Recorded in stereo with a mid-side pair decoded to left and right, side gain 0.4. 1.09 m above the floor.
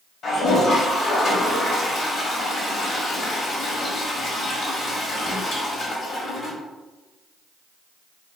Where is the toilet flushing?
65° left, 1.1 m.